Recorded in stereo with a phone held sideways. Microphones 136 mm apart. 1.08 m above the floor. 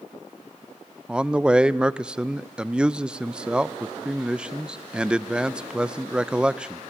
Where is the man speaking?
5° right (ahead or behind), 0.5 m.